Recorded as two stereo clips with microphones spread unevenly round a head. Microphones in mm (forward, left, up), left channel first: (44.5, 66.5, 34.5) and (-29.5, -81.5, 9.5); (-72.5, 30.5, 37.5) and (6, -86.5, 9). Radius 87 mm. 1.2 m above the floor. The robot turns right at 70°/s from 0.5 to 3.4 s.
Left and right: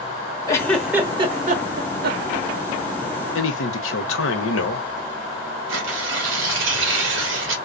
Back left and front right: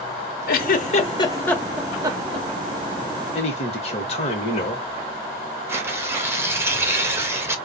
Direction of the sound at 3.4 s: 65° left.